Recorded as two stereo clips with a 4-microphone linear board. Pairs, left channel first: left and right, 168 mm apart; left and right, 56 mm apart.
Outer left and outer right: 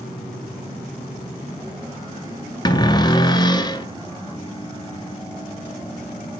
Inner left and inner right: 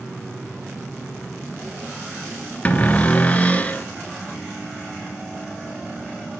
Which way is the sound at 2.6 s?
25° left (ahead or behind).